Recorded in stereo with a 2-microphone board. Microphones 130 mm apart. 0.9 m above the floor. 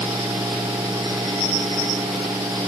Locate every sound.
Only background noise.